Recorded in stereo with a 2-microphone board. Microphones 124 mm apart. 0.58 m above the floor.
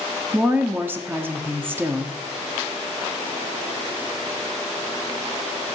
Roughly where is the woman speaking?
Centre.